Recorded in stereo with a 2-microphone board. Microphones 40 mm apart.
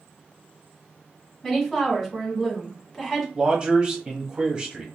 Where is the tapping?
I don't hear tapping.